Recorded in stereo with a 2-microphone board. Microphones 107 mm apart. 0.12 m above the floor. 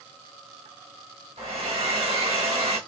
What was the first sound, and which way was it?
A hair dryer, 70° right (ahead or behind).